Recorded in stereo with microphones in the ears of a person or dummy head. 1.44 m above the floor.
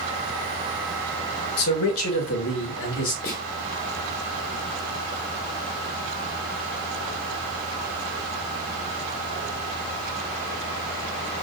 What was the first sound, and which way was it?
A man speaking, 85° left.